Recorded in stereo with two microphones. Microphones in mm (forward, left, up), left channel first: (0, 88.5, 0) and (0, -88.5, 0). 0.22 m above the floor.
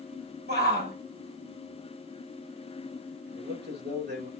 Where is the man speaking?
75° right (ahead or behind), 3 m.